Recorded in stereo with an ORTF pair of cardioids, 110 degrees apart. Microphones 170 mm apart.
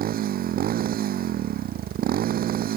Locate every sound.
0.0 s a motorcycle: 60° right